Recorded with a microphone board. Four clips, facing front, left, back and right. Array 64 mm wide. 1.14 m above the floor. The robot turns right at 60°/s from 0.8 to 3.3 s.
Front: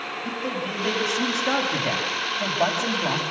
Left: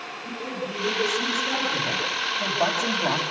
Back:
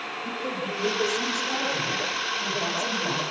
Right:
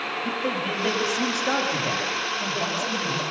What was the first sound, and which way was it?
A man speaking, 80° right.